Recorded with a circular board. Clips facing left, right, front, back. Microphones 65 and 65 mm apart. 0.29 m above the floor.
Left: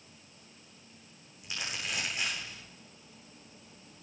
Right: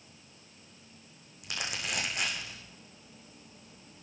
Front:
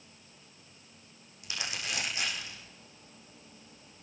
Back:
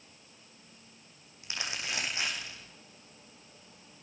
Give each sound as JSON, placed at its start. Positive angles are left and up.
{"t": 1.4, "sound": "crumpling", "azimuth_deg": -115, "distance_m": 5.5}